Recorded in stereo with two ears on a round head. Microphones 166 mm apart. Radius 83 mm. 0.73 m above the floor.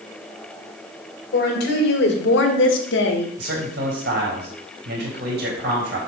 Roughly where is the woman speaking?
Left.